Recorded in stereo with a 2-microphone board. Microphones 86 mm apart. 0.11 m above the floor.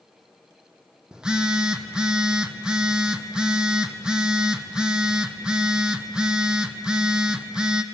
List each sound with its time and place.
1.1 s a phone buzzing: 10° right (ahead or behind), 0.8 m